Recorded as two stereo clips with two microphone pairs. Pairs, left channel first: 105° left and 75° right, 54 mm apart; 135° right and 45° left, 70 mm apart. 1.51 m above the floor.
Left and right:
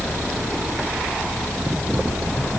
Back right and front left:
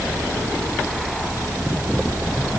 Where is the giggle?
No giggle in this recording.